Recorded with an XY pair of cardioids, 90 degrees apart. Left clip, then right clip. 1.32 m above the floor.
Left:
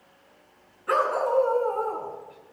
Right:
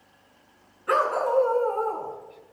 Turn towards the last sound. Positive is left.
turn(degrees=-10)